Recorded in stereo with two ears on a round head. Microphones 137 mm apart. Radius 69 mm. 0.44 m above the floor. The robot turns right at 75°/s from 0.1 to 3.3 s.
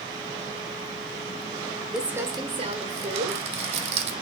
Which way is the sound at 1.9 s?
175° right.